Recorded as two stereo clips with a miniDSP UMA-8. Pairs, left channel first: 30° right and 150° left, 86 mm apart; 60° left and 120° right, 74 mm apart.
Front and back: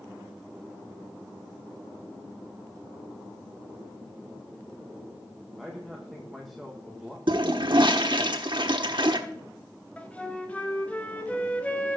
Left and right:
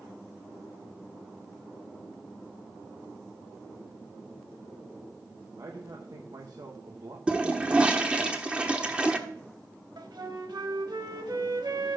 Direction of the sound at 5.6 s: 120° right.